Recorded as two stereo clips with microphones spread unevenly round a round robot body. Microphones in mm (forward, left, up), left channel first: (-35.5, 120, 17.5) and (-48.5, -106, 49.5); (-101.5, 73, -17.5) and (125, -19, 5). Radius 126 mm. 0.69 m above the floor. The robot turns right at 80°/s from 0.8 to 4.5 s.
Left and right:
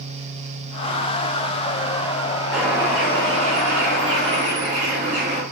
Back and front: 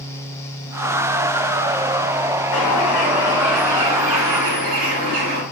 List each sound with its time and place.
2.5 s a bird: 175° left, 1.8 m; by 5.4 s 30° right, 1.8 m